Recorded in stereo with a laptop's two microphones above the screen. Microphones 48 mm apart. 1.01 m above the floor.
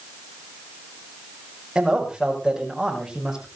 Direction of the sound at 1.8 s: 15° right (ahead or behind).